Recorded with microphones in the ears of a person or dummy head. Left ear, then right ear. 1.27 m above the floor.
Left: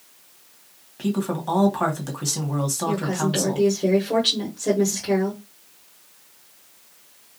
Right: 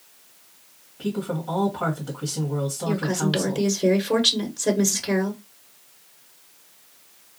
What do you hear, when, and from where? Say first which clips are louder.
1.0 s a woman speaking: left 2 dB; 65° left (ahead or behind), 1.8 m
2.9 s a woman speaking: even; 40° right (ahead or behind), 0.9 m